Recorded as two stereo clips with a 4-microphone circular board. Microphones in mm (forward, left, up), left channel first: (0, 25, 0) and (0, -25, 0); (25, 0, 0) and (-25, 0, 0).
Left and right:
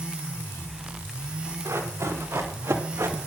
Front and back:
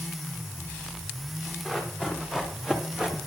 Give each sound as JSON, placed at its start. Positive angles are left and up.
{"t": 1.6, "sound": "running footsteps", "azimuth_deg": -100, "distance_m": 5.0}